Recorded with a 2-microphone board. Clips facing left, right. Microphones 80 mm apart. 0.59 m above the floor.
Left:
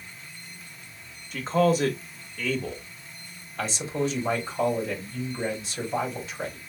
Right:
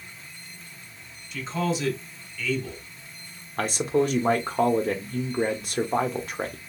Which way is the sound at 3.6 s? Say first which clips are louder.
Right 5 dB; 50° right (ahead or behind).